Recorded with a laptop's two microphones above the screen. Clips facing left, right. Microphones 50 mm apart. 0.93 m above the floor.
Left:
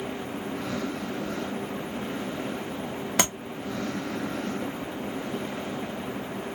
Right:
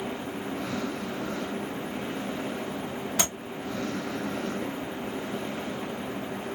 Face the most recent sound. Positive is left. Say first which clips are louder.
# left 5 dB
turn(degrees=75)  # may be behind; listen again after turning